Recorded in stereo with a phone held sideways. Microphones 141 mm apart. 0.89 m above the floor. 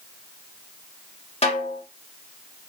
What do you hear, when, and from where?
1.4 s a snare drum: 45° left (ahead or behind), 1.4 m